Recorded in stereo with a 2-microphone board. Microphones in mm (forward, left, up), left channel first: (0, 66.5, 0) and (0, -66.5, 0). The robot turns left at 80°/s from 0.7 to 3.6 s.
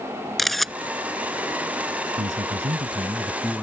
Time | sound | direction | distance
0.4 | a camera shutter | centre (ahead or behind) | ?
2.2 | a man speaking | 75° right | ?